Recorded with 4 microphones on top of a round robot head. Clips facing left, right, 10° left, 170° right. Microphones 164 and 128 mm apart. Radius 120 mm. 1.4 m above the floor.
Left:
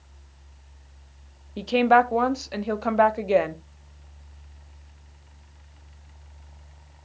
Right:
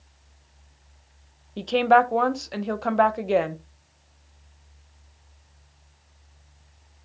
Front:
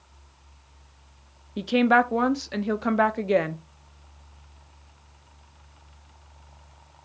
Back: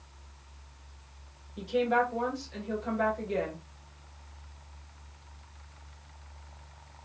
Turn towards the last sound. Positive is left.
turn(degrees=5)